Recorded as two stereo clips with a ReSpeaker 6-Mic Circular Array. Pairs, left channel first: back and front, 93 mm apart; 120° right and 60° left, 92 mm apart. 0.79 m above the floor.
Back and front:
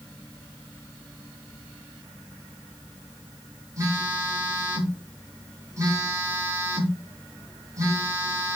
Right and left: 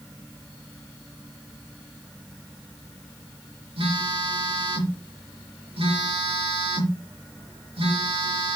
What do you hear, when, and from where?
3.8 s a phone buzzing: 55° left, 4.5 m